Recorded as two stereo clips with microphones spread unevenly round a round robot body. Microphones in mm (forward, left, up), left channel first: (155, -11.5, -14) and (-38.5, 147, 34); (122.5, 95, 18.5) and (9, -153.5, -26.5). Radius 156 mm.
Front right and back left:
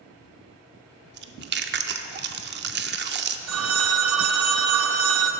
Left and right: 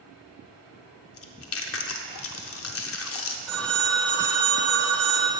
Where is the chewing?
95° left, 0.6 m.